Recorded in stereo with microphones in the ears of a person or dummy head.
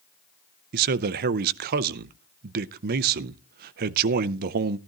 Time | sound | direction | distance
0.7 | a man speaking | 50° right (ahead or behind) | 0.6 m